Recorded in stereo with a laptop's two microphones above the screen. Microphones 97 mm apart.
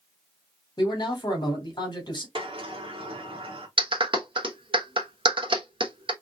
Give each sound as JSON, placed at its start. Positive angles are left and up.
{"t": 0.8, "sound": "a man speaking", "side_deg": 45, "distance_m": 1.7}
{"t": 2.4, "sound": "a sliding door", "side_deg": -65, "distance_m": 1.4}
{"t": 3.8, "sound": "a clap", "side_deg": -60, "distance_m": 1.0}